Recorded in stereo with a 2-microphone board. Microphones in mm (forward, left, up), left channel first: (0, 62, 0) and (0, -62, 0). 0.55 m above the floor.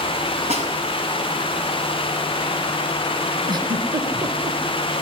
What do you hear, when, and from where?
0.5 s a snare drum: 60° right (ahead or behind), 5.5 m
3.5 s a giggle: 35° right (ahead or behind), 3.5 m